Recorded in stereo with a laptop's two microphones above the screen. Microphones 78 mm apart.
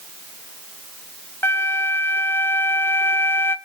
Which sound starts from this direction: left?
A flute, at 1.4 s.